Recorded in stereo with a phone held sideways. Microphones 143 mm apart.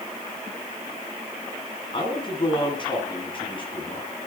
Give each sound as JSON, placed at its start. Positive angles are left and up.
{"t": 1.9, "sound": "a man speaking", "side_deg": 35, "distance_m": 9.5}